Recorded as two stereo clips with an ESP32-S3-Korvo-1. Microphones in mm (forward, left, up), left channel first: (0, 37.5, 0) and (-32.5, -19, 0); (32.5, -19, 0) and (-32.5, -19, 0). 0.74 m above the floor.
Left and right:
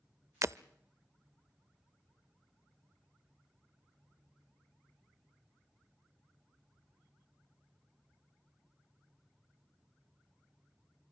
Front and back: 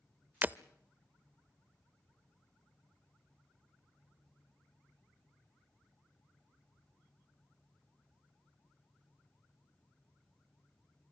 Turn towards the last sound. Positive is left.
turn(degrees=-125)